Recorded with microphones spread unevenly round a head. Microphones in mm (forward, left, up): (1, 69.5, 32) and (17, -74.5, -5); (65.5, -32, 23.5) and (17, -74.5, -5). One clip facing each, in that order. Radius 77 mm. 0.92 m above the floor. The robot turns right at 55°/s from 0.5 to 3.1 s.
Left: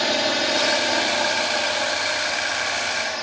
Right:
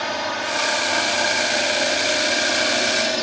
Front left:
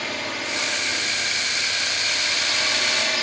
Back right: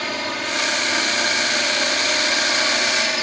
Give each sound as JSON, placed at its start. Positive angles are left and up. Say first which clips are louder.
{"t": 0.0, "sound": "a drone", "louder": "left 3 dB, back right 3 dB", "azimuth_deg": 150}